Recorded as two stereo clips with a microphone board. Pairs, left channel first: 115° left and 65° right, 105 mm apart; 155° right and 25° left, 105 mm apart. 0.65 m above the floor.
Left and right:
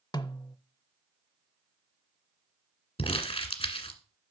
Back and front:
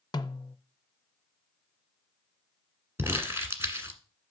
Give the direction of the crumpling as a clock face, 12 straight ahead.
9 o'clock.